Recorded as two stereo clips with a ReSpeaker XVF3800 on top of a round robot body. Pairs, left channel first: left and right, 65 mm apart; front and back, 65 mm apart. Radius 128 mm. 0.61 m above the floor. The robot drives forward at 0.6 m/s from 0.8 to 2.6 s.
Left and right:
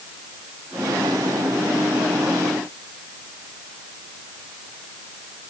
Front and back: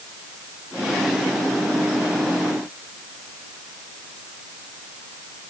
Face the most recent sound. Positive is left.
No sound to turn to.